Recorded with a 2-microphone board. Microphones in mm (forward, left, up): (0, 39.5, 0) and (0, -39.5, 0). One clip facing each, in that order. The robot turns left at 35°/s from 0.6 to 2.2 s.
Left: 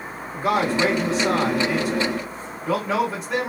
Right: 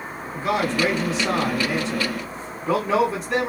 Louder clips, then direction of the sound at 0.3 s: Left 2 dB; 55° left.